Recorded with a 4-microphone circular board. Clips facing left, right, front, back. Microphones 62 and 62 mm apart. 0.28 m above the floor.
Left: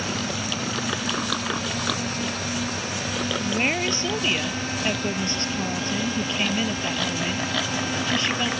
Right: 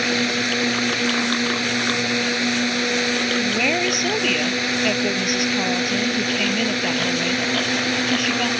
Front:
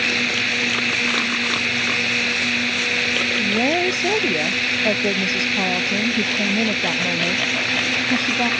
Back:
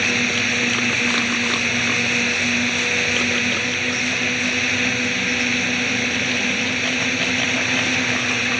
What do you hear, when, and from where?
0.0 s a drone: 95° right
3.4 s a woman speaking: 20° right